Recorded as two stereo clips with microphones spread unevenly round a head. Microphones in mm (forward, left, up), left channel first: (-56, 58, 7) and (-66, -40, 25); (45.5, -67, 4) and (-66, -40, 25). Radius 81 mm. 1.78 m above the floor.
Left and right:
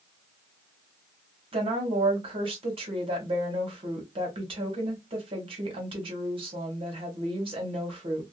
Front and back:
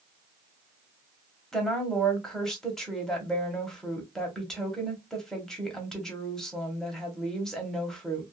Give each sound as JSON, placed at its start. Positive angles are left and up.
{"t": 1.5, "sound": "a woman speaking", "azimuth_deg": -105, "distance_m": 1.2}